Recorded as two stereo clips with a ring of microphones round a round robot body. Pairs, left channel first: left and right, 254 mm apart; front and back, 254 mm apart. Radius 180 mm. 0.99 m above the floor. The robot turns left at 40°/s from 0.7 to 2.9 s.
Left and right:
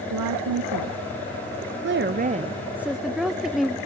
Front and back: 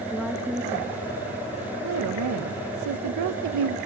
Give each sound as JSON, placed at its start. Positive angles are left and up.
{"t": 0.1, "sound": "a woman speaking", "azimuth_deg": -90, "distance_m": 0.5}